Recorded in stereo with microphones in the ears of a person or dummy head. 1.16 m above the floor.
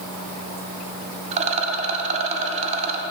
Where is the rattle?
30° right (ahead or behind), 0.6 m.